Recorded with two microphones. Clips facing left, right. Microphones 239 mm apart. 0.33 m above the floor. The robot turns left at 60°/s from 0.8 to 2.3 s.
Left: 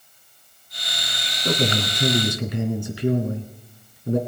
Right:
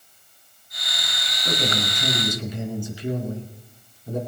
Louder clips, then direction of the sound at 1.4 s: Left 4 dB; 130° left.